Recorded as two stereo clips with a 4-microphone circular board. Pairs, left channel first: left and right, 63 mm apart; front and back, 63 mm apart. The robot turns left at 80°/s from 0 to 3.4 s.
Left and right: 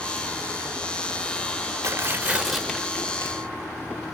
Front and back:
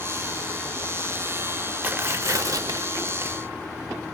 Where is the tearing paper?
120° right, 0.5 m; by 3.3 s 120° left, 0.5 m.